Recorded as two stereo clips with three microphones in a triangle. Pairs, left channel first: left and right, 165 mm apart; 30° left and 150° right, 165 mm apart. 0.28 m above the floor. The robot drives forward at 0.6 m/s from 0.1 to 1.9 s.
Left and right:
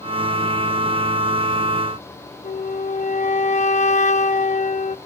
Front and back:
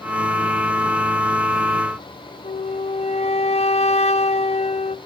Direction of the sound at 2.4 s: 65° left.